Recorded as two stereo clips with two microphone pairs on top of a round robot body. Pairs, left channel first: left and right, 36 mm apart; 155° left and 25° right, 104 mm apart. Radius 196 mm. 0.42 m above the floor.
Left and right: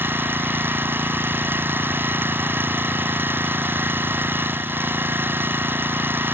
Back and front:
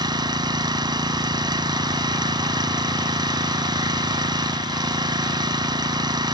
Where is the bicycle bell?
I don't hear a bicycle bell.